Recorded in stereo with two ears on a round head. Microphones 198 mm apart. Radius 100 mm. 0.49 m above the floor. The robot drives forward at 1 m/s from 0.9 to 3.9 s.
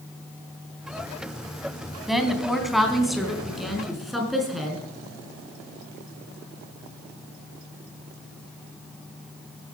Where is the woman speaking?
Centre (ahead or behind), 3 m.